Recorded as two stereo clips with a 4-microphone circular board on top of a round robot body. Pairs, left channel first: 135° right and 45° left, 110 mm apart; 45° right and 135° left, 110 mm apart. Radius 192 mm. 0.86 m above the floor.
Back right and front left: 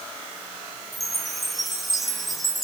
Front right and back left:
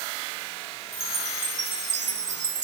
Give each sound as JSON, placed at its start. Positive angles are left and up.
{"t": 0.9, "sound": "a chime", "azimuth_deg": 135, "distance_m": 1.5}